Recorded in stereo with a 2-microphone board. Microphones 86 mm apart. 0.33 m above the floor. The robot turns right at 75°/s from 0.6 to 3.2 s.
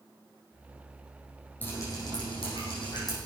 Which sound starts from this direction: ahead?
Dripping, at 1.6 s.